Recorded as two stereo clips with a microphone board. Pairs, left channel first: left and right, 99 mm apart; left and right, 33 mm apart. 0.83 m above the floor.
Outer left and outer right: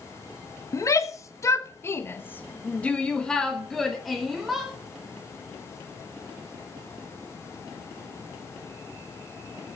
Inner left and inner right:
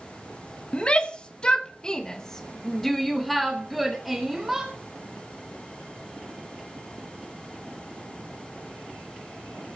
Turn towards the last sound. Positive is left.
turn(degrees=-5)  # may be behind; listen again after turning